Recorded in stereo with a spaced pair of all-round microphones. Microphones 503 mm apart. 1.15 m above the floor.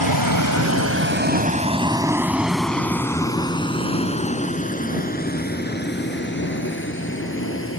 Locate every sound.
0.0 s a vehicle: 50° right (ahead or behind); by 7.8 s 25° left (ahead or behind)